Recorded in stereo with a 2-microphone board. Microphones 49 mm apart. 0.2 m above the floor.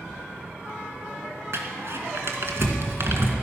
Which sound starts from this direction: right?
Crumpling, at 1.5 s.